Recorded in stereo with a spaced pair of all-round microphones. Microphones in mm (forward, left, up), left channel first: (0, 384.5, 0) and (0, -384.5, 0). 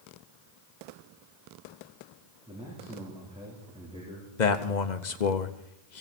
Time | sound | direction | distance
2.5 | a man speaking | 5° right (ahead or behind) | 3.5 m
4.4 | a man speaking | 75° left (ahead or behind) | 1.1 m